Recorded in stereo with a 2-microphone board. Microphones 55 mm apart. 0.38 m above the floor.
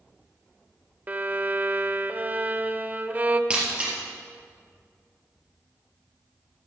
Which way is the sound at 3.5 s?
20° right (ahead or behind).